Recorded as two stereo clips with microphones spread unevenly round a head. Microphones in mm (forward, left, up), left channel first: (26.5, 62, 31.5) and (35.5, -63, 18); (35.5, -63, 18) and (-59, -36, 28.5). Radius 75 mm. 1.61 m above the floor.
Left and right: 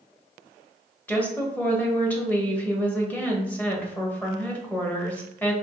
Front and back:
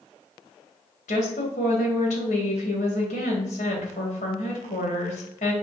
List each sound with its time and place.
1.1 s a woman speaking: 20° left, 1.4 m